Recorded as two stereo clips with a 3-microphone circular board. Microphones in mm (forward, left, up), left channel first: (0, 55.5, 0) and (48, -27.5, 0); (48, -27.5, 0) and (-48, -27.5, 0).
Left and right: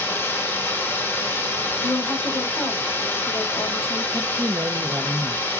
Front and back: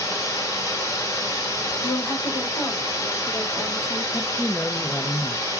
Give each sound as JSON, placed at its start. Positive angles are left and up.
{"t": 0.0, "sound": "running water", "azimuth_deg": 50, "distance_m": 1.3}
{"t": 1.8, "sound": "a woman speaking", "azimuth_deg": 50, "distance_m": 3.0}
{"t": 4.1, "sound": "a man speaking", "azimuth_deg": -70, "distance_m": 0.5}